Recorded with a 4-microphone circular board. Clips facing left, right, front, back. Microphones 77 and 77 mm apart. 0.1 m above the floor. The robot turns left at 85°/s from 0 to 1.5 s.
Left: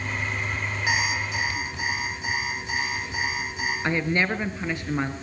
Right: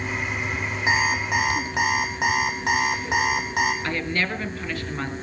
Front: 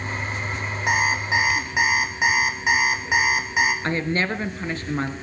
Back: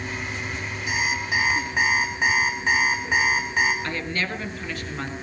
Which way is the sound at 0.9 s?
25° right.